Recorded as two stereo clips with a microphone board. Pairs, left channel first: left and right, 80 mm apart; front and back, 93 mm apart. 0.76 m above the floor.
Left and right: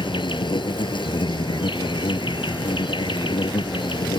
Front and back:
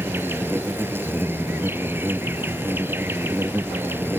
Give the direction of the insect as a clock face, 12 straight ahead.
8 o'clock.